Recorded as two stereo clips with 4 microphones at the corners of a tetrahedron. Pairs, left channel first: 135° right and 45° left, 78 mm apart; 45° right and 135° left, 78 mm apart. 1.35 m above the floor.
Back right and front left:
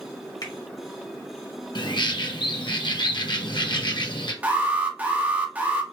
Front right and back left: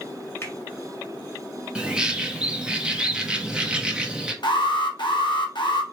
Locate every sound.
0.4 s a finger snap: 100° right, 1.7 m
1.8 s a bird: 145° right, 1.0 m
4.4 s an alarm: 25° right, 1.2 m